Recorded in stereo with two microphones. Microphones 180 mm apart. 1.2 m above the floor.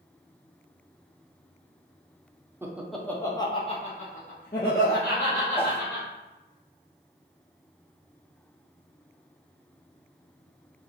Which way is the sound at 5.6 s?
30° left (ahead or behind).